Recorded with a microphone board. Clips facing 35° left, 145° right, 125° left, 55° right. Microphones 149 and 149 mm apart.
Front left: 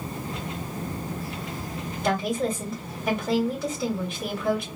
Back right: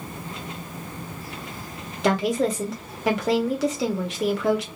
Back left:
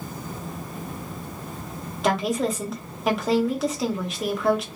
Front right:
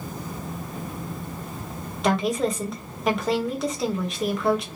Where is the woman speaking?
145° right, 1.0 m.